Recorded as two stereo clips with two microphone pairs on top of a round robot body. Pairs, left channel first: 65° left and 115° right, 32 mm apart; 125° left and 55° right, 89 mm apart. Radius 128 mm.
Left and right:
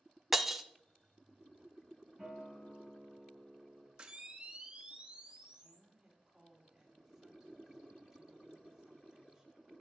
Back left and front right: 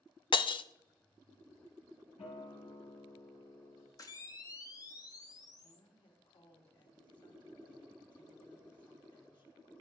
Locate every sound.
0.3 s breaking glass: 160° left, 0.5 m
2.2 s a guitar: 135° left, 3.5 m
4.0 s a camera shutter: straight behind, 1.1 m
5.6 s a woman speaking: 160° left, 4 m